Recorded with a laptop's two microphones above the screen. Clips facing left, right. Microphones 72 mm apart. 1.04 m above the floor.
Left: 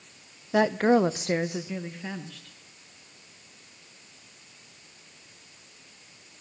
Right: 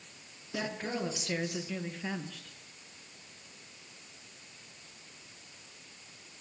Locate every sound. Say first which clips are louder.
0.5 s a woman speaking: left 15 dB; 70° left (ahead or behind), 0.7 m; by 2.5 s 10° right (ahead or behind), 1.0 m